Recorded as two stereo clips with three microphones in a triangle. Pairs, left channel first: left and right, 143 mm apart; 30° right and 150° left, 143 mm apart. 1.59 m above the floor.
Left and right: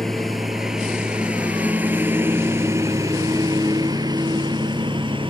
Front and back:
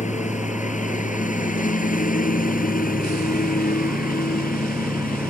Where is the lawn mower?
Straight ahead; by 5.3 s 35° right.